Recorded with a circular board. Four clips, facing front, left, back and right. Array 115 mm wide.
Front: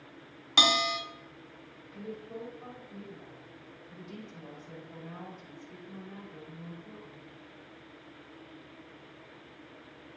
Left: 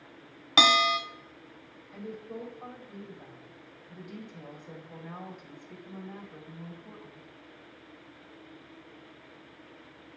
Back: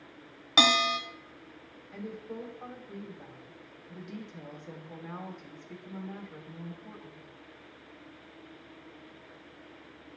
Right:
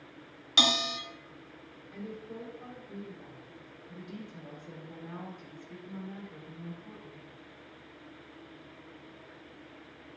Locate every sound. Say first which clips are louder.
0.6 s a bell: left 8 dB, back 2 dB; 120° left, 0.9 m
1.9 s a woman speaking: left 2 dB, back 1 dB; straight behind, 2.5 m